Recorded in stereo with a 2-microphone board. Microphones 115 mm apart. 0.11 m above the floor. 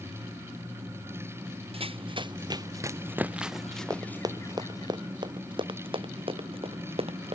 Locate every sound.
1.7 s running footsteps: 50° right (ahead or behind); by 4.9 s 30° left (ahead or behind)
3.9 s running footsteps: 30° right (ahead or behind); by 7.3 s 50° right (ahead or behind)